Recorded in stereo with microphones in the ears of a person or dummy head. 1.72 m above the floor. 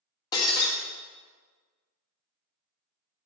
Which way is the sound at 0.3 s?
25° left (ahead or behind).